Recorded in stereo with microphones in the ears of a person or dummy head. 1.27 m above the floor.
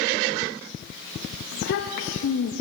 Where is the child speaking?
60° left (ahead or behind), 0.7 m.